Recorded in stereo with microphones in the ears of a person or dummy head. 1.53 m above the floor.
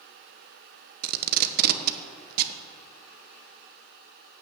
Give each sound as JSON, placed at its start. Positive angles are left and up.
{"t": 1.0, "sound": "tape being pulled", "side_deg": -60, "distance_m": 1.0}